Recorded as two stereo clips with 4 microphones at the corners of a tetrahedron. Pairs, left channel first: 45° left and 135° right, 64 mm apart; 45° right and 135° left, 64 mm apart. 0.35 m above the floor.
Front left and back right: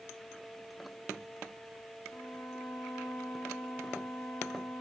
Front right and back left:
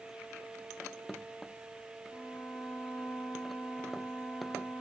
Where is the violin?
20° left, 9 m.